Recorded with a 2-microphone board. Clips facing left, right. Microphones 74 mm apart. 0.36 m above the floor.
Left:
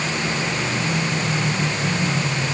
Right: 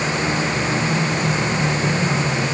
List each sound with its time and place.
Only background noise.